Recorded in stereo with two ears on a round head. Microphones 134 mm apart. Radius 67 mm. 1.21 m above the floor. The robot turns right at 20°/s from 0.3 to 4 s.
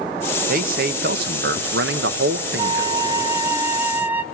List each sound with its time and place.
0.5 s a man speaking: 120° right, 0.9 m; by 2.9 s 70° right, 0.9 m
2.6 s a flute: 25° right (ahead or behind), 0.6 m; by 4.2 s 10° right (ahead or behind), 0.6 m